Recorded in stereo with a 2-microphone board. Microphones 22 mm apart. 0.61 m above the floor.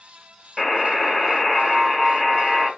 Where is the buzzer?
5° left (ahead or behind), 1.0 m.